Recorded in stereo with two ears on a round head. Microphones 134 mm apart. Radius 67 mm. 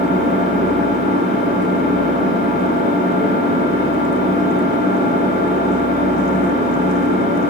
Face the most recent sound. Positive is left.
turn(degrees=50)  # may be behind; listen again after turning